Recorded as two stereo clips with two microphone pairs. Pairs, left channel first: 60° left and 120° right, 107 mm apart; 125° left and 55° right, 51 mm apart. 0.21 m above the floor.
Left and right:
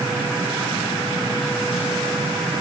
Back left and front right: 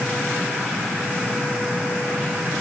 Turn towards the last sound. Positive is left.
No sound to turn to.